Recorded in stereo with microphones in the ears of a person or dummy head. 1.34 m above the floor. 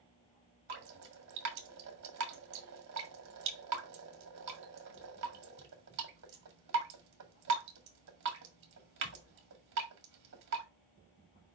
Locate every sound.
0.7 s dripping: 70° right (ahead or behind), 1.8 m